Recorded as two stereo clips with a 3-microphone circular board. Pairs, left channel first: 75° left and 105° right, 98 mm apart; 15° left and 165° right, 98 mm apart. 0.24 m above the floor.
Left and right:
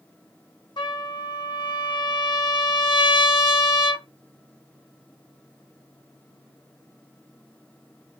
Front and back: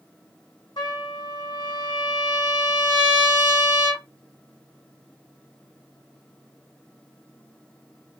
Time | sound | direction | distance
0.8 | a trumpet | 45° left | 0.6 m